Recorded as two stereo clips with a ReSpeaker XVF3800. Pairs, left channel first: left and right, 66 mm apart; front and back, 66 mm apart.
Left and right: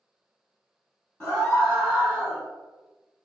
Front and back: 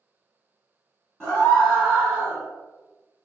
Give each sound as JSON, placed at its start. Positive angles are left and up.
{"t": 1.2, "sound": "a scream", "azimuth_deg": 45, "distance_m": 1.4}